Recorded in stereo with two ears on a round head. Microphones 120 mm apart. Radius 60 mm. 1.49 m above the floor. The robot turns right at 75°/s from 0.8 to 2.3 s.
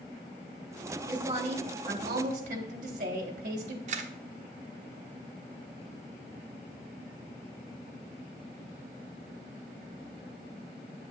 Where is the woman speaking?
155° right, 1.6 m; by 3.8 s 60° right, 1.6 m.